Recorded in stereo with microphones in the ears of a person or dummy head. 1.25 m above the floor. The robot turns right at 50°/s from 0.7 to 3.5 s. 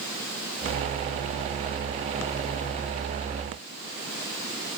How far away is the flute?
I don't hear a flute.